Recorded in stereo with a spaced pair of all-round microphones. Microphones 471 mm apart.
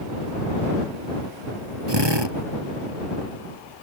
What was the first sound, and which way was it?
A drill, 60° right (ahead or behind).